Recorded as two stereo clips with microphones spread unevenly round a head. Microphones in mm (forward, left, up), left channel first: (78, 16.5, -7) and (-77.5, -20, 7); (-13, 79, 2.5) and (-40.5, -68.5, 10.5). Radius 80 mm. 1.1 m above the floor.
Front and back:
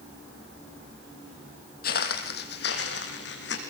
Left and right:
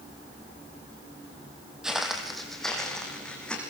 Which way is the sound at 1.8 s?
15° right.